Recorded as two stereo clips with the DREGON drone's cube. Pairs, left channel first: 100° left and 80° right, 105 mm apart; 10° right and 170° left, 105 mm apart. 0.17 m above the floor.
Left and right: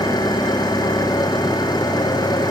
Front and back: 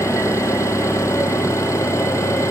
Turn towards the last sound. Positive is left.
turn(degrees=50)